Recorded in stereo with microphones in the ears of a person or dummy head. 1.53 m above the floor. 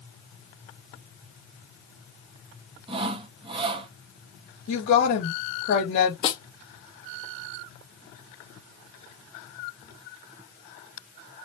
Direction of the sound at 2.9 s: 35° right (ahead or behind).